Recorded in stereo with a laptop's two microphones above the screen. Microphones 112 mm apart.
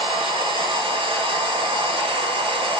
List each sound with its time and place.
0.0 s a machine running: 60° right (ahead or behind), 1.8 m